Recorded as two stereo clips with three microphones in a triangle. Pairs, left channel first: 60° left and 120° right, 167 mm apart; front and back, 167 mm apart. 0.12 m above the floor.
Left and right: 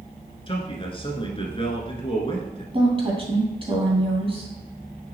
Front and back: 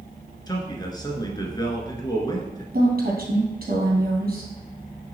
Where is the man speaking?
45° left, 1.3 m.